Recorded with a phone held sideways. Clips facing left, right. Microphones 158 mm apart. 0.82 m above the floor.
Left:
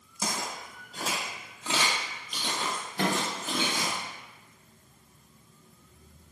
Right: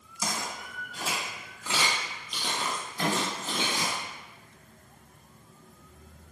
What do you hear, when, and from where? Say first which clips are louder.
0.2 s footsteps: even; 50° left (ahead or behind), 1.4 m; by 4.0 s 40° right (ahead or behind), 1.1 m
3.0 s a microwave: left 1 dB; 65° left (ahead or behind), 0.6 m